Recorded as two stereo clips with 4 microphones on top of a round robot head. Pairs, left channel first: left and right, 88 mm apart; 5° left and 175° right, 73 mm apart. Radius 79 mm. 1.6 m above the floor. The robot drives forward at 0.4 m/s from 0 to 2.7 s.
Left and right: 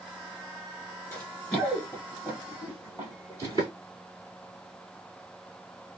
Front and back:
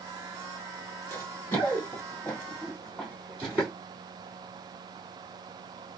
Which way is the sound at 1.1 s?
35° left.